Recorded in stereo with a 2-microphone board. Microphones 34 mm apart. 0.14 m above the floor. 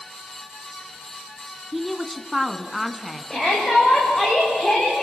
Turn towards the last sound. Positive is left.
turn(degrees=10)  # may be behind; listen again after turning